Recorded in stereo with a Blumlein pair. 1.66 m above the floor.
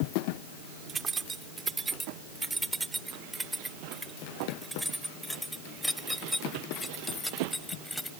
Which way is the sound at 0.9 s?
20° right.